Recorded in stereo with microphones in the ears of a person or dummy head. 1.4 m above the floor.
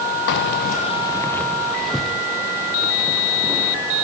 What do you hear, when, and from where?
0.3 s keys jangling: 55° left (ahead or behind), 0.6 m; by 3.8 s 10° right (ahead or behind), 2.5 m